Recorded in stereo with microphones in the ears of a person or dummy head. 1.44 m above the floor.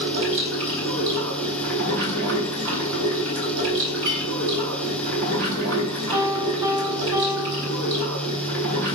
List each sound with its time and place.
0.0 s running water: 65° right (ahead or behind), 3 m
4.0 s a clink: 55° right (ahead or behind), 5 m
6.1 s a piano: 10° right (ahead or behind), 4.5 m